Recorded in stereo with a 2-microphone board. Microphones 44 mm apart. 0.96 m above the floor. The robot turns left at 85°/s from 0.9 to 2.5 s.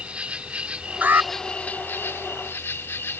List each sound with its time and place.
0.0 s an insect: 150° right; by 3.2 s 75° left
1.0 s an alarm: 40° right (ahead or behind); by 1.3 s 65° right (ahead or behind)